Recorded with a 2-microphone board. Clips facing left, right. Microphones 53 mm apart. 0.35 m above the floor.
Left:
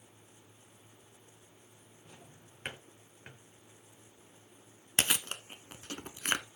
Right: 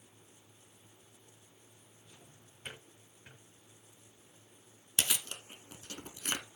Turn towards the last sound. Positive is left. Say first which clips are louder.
# left 4 dB
turn(degrees=45)  # may be behind; listen again after turning